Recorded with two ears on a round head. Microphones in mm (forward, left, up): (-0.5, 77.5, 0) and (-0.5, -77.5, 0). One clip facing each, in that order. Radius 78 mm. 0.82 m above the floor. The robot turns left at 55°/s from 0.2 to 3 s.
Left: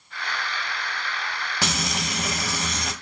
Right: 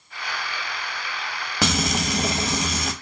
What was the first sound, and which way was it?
Frying, 110° right.